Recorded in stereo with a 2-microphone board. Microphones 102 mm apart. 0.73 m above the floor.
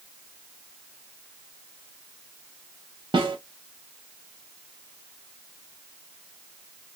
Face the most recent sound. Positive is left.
turn(degrees=-50)  # may be behind; listen again after turning